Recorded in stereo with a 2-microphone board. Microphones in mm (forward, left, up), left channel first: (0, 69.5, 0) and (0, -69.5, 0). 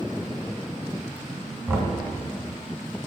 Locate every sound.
1.7 s knocking: 15° right (ahead or behind), 1.5 m